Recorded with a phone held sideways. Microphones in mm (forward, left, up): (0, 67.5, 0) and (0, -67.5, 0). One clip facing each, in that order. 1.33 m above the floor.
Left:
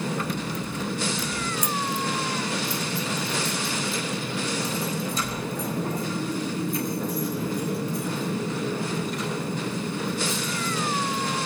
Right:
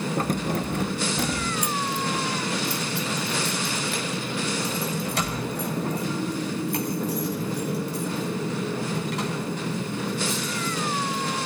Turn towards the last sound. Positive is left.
turn(degrees=-80)